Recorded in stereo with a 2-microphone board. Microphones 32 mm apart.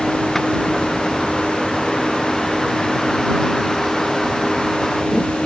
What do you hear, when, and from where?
0.0 s a vehicle: 5° left (ahead or behind)